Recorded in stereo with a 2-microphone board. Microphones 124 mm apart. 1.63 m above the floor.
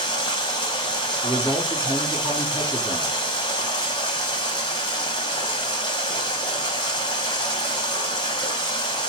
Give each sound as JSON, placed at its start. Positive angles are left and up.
{"t": 0.0, "sound": "running water", "side_deg": 35, "distance_m": 0.9}
{"t": 1.2, "sound": "a man speaking", "side_deg": -25, "distance_m": 1.4}